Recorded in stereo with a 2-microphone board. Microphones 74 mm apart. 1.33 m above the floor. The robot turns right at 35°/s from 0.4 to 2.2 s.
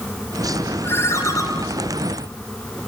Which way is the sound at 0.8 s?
30° left (ahead or behind).